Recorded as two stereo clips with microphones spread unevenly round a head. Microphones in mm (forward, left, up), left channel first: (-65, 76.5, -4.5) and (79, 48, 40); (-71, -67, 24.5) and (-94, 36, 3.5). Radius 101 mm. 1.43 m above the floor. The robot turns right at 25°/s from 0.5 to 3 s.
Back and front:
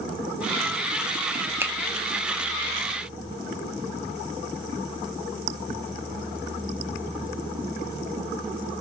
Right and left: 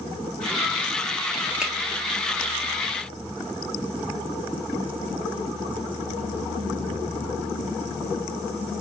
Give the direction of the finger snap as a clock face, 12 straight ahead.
12 o'clock.